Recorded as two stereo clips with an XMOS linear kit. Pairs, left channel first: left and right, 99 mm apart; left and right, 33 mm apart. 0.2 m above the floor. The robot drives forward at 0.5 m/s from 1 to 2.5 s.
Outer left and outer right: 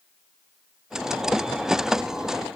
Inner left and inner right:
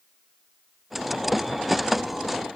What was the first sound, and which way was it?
Only background noise.